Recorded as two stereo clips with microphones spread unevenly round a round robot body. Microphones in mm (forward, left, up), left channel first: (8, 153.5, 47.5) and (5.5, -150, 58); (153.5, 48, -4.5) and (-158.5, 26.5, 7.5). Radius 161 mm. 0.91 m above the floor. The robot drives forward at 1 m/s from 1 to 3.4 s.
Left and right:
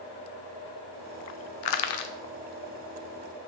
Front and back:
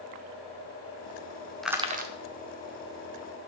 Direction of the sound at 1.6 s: 95° left.